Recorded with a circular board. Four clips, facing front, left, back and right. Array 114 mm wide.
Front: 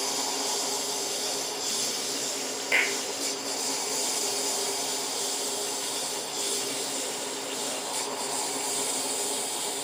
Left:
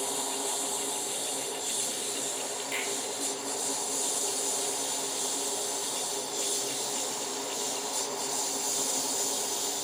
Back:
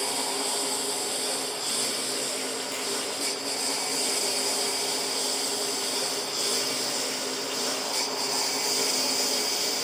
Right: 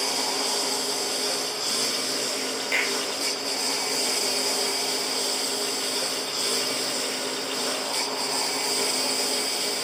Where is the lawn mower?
105° right; by 9.8 s 120° right.